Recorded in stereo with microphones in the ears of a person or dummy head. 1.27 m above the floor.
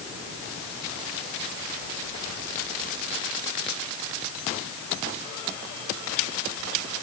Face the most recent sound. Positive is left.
No sound to turn to.